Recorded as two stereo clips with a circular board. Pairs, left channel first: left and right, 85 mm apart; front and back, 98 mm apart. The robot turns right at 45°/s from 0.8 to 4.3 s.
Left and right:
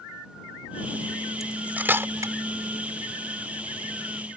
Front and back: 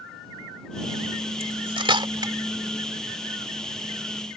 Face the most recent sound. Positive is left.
turn(degrees=-45)